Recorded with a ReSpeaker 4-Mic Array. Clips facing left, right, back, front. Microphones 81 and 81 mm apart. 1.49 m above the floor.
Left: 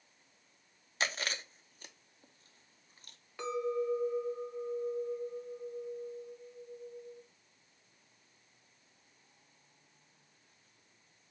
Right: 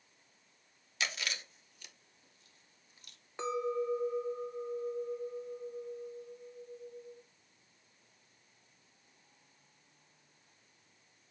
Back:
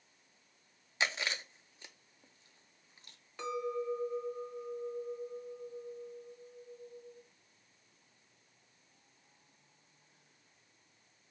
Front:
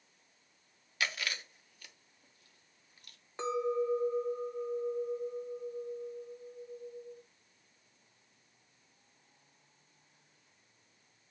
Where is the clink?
40° right, 0.6 m.